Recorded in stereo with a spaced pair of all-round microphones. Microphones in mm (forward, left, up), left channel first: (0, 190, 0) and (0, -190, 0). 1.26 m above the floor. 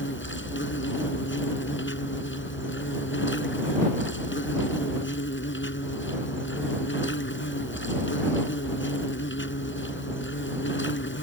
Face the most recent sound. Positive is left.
turn(degrees=30)  # may be behind; listen again after turning